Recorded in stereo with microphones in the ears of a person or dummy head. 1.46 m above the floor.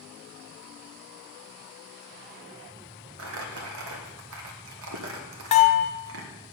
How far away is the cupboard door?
No cupboard door in this recording.